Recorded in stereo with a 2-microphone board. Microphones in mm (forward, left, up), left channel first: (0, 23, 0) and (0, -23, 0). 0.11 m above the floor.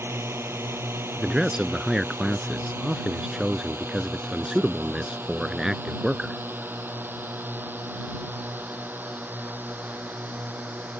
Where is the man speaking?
10° right (ahead or behind).